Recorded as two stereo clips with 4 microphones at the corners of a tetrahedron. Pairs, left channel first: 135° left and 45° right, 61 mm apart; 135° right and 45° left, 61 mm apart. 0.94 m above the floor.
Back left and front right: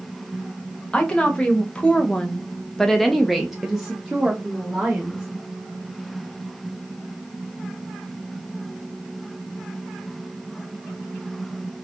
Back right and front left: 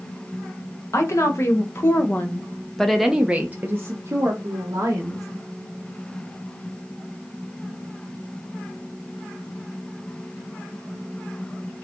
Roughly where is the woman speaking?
Behind right.